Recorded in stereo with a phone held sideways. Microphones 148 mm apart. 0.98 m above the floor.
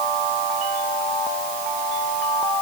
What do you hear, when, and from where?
Only background noise.